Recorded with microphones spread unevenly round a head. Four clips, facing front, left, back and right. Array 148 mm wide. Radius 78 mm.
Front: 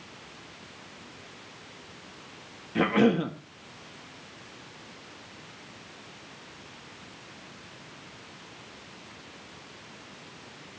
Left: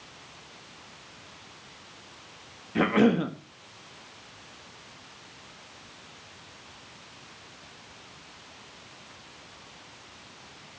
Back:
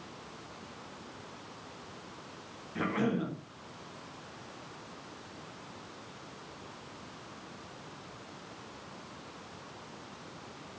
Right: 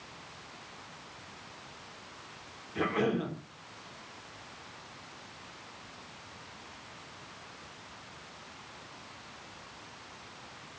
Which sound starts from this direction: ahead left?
A cough, at 2.8 s.